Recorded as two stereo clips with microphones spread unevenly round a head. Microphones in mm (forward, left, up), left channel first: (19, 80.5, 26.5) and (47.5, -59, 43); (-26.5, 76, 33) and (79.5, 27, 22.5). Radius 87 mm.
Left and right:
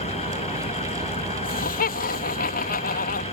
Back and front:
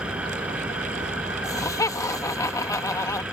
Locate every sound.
0.0 s an engine running: 55° left
1.4 s laughter: 90° left